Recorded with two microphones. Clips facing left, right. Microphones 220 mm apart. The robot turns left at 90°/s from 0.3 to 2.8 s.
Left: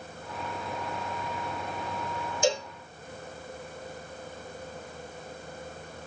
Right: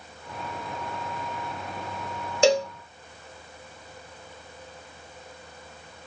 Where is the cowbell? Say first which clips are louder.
Right 7 dB; 70° right (ahead or behind), 1.2 m; by 2.7 s 85° right, 1.2 m.